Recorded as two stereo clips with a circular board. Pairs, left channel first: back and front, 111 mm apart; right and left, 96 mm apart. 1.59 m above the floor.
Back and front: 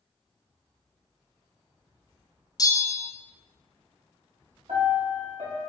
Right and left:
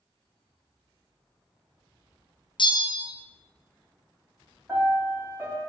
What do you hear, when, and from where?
2.6 s a bell: 125° right, 0.6 m
4.7 s a piano: 25° left, 2 m